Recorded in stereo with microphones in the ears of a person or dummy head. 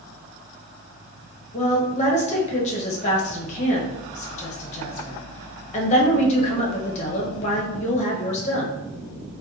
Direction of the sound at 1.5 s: 40° left (ahead or behind).